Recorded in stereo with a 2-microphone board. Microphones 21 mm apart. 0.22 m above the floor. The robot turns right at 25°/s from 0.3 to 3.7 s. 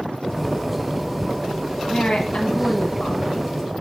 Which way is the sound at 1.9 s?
70° left.